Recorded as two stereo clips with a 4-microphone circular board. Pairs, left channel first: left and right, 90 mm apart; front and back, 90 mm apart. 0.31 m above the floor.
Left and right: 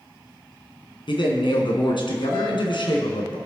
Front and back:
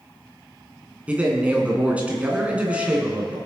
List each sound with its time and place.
1.1 s a man speaking: 105° left, 2.5 m